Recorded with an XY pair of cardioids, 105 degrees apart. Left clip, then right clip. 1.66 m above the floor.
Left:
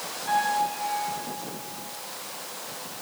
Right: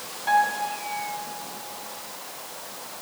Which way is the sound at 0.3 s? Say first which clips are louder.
Right 2 dB; 70° right.